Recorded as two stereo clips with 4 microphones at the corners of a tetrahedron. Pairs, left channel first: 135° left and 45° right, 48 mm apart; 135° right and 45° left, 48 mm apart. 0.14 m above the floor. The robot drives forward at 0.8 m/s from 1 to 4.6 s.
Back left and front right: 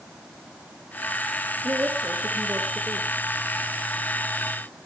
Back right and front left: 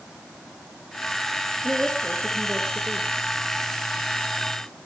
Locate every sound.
1.6 s a woman speaking: 20° right, 4.5 m; by 3.1 s 25° right, 3.5 m